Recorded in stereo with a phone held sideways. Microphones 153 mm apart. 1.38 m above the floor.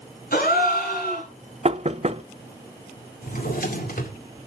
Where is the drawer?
70° left (ahead or behind), 2 m.